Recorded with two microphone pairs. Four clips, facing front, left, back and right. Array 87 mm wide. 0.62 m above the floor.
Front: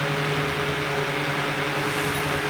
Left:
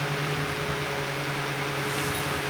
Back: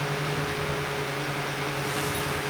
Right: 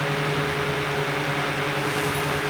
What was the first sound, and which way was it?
Only background noise.